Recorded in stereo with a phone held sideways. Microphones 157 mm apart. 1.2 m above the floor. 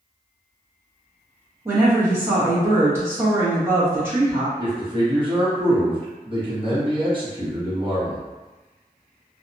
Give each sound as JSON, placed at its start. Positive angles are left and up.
{"t": 1.6, "sound": "a woman speaking", "side_deg": -15, "distance_m": 1.2}
{"t": 4.6, "sound": "a man speaking", "side_deg": -35, "distance_m": 1.2}